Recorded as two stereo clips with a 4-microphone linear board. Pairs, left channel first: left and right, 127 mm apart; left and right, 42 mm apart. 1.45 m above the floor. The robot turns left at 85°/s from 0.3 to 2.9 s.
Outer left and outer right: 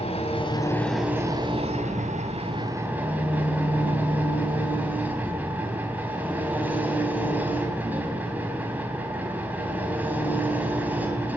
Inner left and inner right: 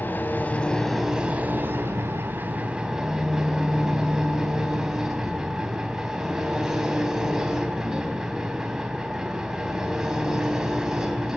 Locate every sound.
0.0 s an engine running: 55° left, 3.5 m; by 11.4 s 165° right, 3.5 m